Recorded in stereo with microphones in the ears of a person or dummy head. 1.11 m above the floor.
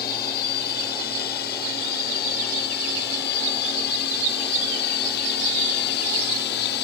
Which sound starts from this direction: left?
A drone, at 0.0 s.